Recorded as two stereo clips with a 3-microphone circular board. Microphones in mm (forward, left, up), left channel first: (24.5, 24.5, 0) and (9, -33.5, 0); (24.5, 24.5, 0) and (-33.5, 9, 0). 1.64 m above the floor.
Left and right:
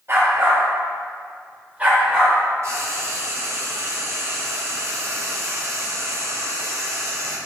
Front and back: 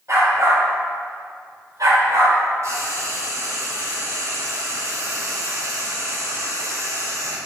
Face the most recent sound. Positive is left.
turn(degrees=-135)